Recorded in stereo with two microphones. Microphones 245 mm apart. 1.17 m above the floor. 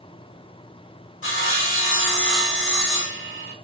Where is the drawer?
I don't hear a drawer.